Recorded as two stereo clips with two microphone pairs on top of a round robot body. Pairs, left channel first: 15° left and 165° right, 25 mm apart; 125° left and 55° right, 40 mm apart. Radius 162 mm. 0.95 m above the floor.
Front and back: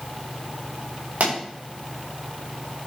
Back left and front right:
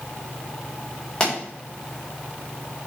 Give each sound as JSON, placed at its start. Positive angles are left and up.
{"t": 1.2, "sound": "a pop", "azimuth_deg": -160, "distance_m": 5.0}